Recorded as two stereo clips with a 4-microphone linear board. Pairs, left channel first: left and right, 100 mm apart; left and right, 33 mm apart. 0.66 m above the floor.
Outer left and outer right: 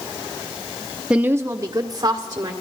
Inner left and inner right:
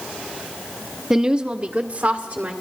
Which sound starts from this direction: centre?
A woman speaking, at 1.1 s.